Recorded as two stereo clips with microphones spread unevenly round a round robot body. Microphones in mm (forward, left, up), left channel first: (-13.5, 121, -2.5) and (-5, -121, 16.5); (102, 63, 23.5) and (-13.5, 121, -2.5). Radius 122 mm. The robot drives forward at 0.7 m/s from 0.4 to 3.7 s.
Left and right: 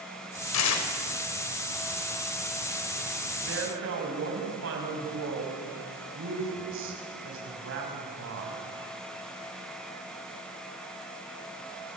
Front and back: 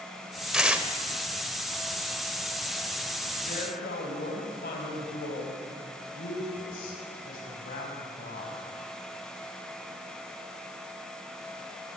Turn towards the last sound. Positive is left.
turn(degrees=-50)